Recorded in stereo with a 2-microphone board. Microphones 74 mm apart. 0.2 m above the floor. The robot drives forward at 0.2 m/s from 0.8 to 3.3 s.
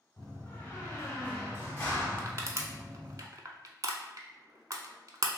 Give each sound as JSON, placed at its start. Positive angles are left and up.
{"t": 0.2, "sound": "a door slam", "side_deg": 30, "distance_m": 1.3}
{"t": 2.2, "sound": "crushing", "side_deg": -40, "distance_m": 0.6}